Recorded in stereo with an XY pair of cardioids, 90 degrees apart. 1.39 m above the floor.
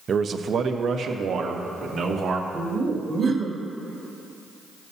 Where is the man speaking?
50° right, 0.7 m; by 2.4 s 75° right, 2 m.